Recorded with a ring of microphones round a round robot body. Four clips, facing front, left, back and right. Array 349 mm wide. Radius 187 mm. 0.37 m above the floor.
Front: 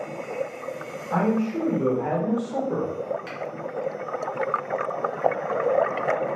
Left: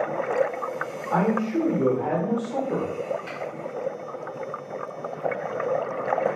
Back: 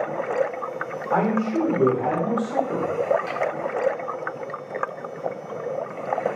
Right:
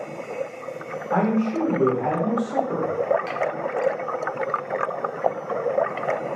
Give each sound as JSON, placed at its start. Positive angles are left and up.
{"t": 1.1, "sound": "a man speaking", "azimuth_deg": -165, "distance_m": 1.7}
{"t": 3.3, "sound": "a finger snap", "azimuth_deg": -85, "distance_m": 1.4}